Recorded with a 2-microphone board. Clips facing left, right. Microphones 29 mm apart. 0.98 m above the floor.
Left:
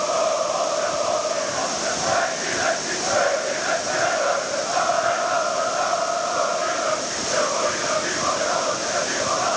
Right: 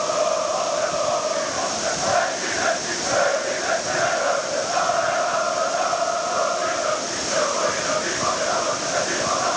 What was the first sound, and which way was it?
Only background noise.